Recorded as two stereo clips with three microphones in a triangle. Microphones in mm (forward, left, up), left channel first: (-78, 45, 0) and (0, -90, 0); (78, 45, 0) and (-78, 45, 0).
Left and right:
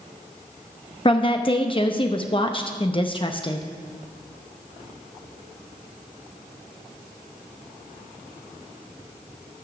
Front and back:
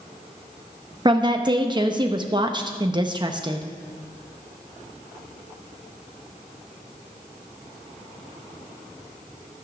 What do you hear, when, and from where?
1.1 s a woman speaking: 145° left, 0.7 m